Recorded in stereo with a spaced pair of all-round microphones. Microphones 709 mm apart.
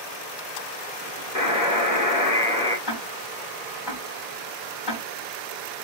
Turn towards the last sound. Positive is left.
turn(degrees=30)  # may be behind; listen again after turning